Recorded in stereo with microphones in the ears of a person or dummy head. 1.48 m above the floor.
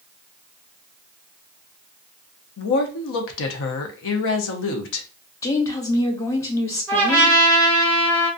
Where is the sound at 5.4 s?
15° left (ahead or behind), 0.6 m.